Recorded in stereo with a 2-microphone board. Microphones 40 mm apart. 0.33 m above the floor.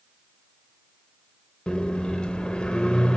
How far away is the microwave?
About 0.7 m.